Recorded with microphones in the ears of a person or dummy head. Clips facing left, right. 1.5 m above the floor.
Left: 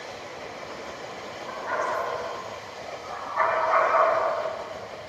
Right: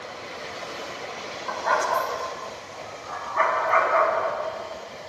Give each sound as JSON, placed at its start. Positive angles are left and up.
{"t": 1.5, "sound": "a dog barking", "side_deg": -75, "distance_m": 3.5}